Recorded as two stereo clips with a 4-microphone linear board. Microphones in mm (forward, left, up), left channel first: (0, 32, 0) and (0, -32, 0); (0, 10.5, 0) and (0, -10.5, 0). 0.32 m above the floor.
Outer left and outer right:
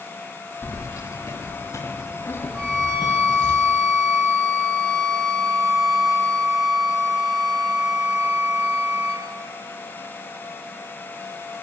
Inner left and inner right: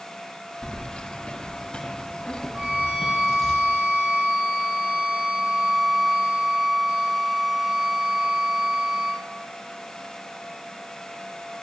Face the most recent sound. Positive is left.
turn(degrees=-60)  # may be behind; listen again after turning